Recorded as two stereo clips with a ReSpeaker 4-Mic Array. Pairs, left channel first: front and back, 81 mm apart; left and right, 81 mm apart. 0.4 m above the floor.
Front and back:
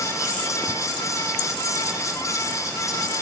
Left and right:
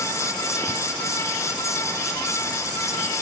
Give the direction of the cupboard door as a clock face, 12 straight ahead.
No cupboard door in this recording.